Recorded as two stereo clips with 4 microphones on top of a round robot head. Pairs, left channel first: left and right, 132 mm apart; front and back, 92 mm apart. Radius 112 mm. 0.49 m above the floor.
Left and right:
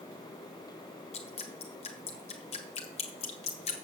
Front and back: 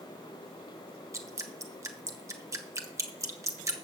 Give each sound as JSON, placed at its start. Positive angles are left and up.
{"t": 1.1, "sound": "dripping", "azimuth_deg": 125, "distance_m": 1.4}